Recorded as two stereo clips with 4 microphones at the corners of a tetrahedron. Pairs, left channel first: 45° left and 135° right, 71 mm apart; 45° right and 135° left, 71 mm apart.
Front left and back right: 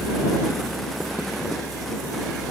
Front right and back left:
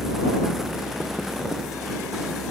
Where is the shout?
No shout in this recording.